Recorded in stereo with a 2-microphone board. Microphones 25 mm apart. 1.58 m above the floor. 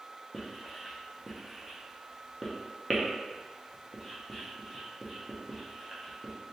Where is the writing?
Centre (ahead or behind), 0.8 m.